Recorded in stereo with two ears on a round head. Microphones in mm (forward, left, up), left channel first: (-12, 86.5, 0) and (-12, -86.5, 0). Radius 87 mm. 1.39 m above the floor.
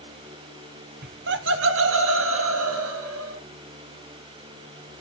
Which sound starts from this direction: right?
Laughter, at 1.0 s.